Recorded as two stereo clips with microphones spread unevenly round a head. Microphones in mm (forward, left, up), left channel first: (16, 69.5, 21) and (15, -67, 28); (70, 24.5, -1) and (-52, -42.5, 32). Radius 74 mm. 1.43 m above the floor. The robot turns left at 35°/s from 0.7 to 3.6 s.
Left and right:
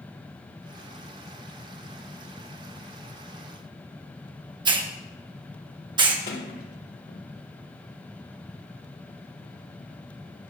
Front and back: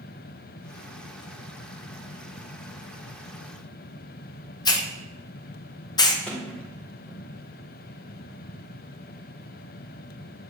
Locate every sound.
4.7 s a hiss: 35° right, 1.6 m
6.3 s a sliding door: 115° left, 2.5 m